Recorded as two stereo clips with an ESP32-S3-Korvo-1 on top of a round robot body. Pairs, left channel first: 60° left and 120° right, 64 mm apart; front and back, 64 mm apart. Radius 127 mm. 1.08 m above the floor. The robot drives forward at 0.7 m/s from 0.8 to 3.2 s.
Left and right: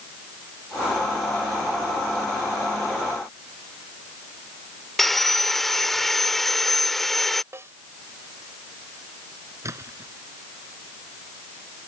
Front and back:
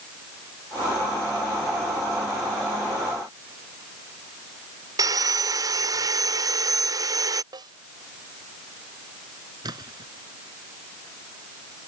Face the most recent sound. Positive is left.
turn(degrees=-165)